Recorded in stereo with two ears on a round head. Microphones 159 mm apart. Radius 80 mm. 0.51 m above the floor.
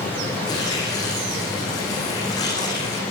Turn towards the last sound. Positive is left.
turn(degrees=20)  # may be behind; listen again after turning